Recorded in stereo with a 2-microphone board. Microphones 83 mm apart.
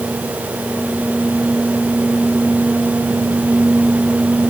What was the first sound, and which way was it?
Only background noise.